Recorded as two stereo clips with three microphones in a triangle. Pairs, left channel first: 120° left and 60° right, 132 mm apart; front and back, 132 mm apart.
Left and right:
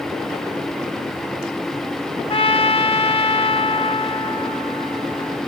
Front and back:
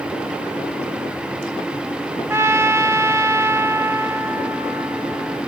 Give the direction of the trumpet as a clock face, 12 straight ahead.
8 o'clock.